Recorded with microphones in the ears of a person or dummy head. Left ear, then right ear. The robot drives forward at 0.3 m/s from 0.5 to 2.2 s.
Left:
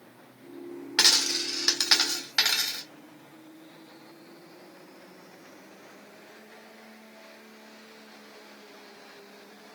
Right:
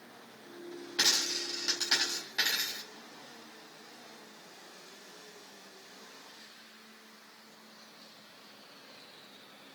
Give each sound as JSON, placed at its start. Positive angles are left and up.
{"t": 1.0, "sound": "a dropped coin", "side_deg": 65, "distance_m": 1.7}